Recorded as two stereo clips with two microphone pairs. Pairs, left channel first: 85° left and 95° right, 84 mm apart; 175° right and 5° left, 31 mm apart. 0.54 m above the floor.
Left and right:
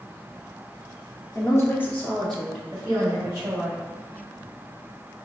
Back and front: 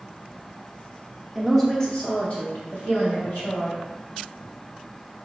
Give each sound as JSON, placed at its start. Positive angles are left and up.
{"t": 1.4, "sound": "a woman speaking", "azimuth_deg": 75, "distance_m": 0.7}